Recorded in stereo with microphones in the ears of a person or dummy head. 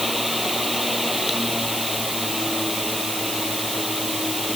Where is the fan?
5° right (ahead or behind).